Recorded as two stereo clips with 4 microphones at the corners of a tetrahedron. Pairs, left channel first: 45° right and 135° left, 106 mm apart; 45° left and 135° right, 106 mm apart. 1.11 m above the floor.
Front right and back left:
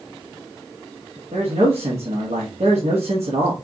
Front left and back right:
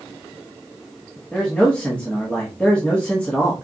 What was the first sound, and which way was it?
A man speaking, 125° left.